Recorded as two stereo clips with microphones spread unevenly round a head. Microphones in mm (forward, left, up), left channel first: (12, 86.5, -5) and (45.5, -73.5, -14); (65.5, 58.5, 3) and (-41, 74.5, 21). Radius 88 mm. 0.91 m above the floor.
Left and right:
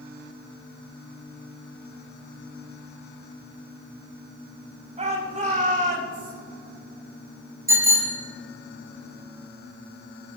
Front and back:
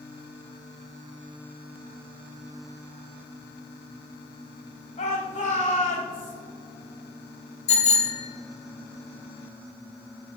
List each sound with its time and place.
5.0 s a shout: 30° right, 6 m; by 6.3 s 45° right, 4.5 m
7.7 s a bicycle bell: 5° right, 4.5 m